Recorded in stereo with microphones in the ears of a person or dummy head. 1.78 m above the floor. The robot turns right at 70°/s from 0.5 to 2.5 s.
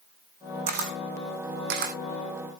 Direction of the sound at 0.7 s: 30° right (ahead or behind).